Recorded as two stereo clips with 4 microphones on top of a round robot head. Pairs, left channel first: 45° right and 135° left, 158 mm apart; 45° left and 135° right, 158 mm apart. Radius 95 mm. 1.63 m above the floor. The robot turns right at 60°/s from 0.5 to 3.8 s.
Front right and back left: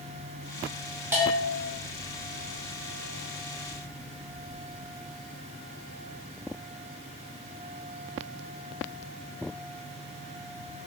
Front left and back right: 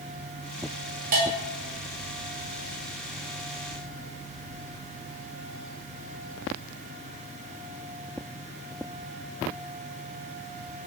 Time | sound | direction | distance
1.1 | a bell | 150° right | 0.5 m